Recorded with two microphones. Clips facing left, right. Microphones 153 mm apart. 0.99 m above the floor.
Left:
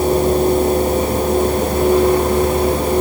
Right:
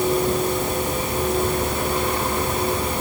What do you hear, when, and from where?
Only background noise.